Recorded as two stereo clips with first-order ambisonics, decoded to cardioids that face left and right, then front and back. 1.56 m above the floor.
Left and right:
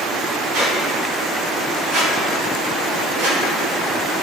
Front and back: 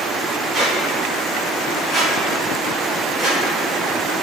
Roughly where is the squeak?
Right.